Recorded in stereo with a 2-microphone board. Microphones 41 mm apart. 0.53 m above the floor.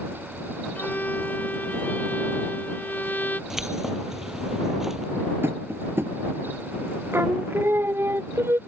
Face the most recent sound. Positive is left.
turn(degrees=-65)  # may be behind; listen again after turning